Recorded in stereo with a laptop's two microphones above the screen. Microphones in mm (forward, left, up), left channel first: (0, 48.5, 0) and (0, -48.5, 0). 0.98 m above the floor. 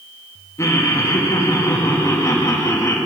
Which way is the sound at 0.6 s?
30° left (ahead or behind).